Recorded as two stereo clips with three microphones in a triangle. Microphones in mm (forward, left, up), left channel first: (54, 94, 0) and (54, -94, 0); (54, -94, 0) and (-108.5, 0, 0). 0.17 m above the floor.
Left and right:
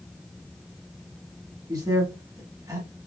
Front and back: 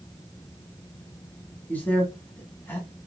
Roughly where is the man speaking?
Right.